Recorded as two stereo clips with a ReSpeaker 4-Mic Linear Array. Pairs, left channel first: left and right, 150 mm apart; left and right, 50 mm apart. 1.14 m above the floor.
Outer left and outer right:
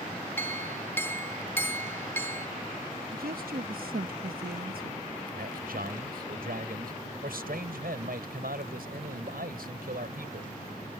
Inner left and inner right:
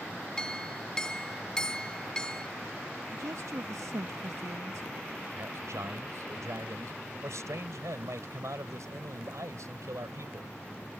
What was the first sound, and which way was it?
A clink, 15° left (ahead or behind).